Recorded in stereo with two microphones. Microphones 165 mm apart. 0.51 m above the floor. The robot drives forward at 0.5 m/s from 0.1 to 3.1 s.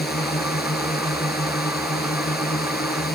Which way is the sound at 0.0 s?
75° left (ahead or behind).